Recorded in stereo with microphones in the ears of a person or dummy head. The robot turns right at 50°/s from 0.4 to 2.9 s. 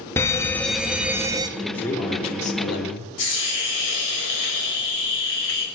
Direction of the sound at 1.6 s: Straight ahead.